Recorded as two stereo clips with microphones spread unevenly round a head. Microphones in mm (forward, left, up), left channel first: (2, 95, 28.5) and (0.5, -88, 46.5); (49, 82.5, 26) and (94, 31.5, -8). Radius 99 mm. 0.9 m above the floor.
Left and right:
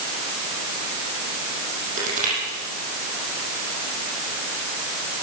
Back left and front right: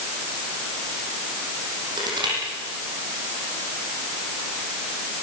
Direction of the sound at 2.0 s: 40° right.